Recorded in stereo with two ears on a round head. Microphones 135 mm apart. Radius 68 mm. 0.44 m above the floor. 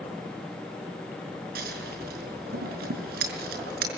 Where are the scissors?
70° right (ahead or behind), 5.5 m.